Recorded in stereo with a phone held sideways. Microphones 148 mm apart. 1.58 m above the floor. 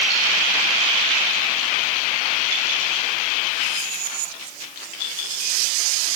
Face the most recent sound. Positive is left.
No sound to turn to.